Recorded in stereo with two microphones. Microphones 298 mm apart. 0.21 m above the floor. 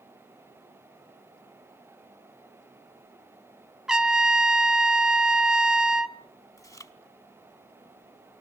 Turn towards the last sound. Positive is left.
turn(degrees=10)  # may be behind; listen again after turning